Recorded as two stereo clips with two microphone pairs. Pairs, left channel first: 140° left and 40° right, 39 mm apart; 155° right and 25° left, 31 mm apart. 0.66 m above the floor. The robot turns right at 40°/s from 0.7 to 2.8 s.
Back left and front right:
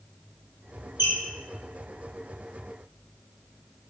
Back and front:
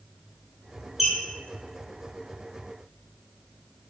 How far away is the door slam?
I don't hear a door slam.